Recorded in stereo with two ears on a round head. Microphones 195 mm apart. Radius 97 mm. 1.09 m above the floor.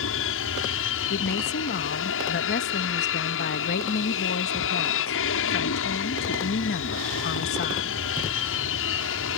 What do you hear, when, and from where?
0.0 s an aircraft: 60° left (ahead or behind)
1.1 s a woman speaking: 45° left (ahead or behind)